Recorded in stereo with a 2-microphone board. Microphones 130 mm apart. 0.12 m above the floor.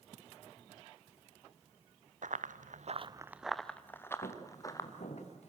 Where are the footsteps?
70° left (ahead or behind), 5 m; by 5.5 s 55° left (ahead or behind), 5 m.